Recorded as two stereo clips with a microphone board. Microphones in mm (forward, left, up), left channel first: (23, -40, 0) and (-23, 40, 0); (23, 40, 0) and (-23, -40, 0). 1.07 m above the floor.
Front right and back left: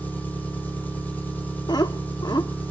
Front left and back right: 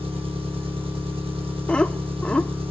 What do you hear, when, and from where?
0.0 s an engine running: 130° right, 3.5 m
1.7 s laughter: 20° right, 1.4 m